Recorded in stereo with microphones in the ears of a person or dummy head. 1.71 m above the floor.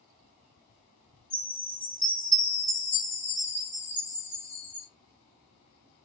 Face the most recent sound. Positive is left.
turn(degrees=10)  # may be behind; listen again after turning